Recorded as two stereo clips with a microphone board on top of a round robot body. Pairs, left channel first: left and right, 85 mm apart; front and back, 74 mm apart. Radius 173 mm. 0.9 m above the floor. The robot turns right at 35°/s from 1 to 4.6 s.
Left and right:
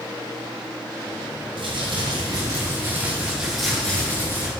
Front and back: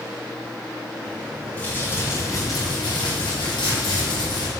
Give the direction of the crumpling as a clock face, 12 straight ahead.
2 o'clock.